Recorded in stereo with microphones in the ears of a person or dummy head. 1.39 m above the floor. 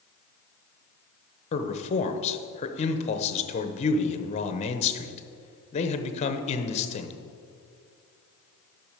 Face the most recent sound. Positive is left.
turn(degrees=30)  # may be behind; listen again after turning